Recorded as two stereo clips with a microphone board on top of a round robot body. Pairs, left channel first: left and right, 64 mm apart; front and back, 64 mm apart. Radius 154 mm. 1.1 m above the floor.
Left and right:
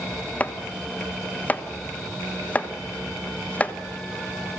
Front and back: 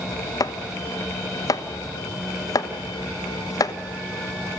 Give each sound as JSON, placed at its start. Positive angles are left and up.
{"t": 0.4, "sound": "chopping", "azimuth_deg": 25, "distance_m": 1.3}